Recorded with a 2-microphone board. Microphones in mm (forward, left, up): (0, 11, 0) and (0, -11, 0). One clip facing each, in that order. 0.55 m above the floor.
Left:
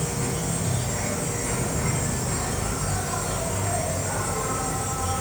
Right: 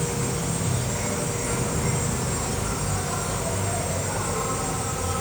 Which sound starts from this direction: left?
An insect, at 0.0 s.